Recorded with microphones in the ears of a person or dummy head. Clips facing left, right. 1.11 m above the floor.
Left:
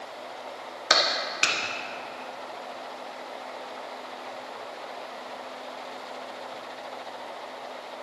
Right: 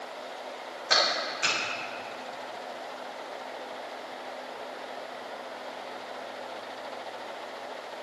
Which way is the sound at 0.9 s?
75° left (ahead or behind).